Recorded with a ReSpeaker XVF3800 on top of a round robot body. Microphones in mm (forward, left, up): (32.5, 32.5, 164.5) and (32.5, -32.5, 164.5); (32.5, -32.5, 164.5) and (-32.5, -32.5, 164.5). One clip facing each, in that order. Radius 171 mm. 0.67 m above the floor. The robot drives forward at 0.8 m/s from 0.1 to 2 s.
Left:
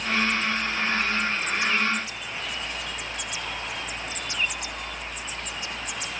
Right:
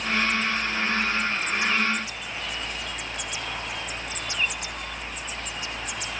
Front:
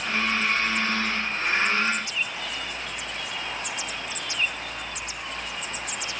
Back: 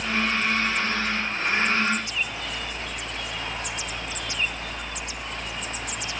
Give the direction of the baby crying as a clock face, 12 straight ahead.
I don't hear a baby crying.